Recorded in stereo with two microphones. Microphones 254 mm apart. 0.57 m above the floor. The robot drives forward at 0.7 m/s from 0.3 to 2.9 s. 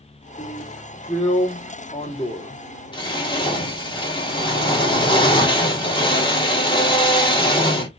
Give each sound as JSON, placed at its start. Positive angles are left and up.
{"t": 0.4, "sound": "a drill", "side_deg": 20, "distance_m": 1.5}